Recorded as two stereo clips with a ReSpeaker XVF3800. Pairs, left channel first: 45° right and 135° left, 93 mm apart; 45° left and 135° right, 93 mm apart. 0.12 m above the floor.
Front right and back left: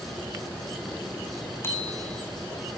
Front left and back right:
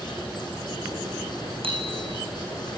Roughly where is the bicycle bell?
Right.